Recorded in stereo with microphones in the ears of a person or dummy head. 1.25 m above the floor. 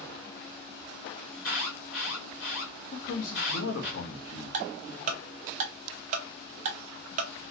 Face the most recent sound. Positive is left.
turn(degrees=-40)  # may be behind; listen again after turning